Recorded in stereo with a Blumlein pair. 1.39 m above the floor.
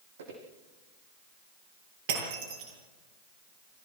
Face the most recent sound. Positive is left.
turn(degrees=-55)